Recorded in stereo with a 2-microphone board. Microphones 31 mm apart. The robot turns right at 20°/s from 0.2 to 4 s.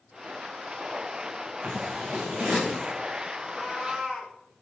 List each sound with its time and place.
1.6 s scissors: 65° right (ahead or behind), 6.5 m; by 2.9 s 40° right (ahead or behind), 6.5 m
3.4 s a cat meowing: 5° left (ahead or behind), 4 m; by 4.3 s 10° right (ahead or behind), 4 m